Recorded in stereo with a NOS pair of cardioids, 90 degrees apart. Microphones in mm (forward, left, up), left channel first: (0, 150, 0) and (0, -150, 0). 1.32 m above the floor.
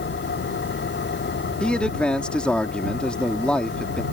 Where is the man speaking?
5° left.